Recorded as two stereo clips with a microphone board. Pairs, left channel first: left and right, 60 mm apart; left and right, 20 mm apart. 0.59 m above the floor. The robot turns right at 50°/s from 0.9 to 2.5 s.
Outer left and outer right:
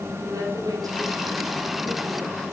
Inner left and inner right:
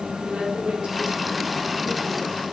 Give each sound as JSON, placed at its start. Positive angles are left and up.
{"t": 0.2, "sound": "a woman speaking", "azimuth_deg": -105, "distance_m": 6.5}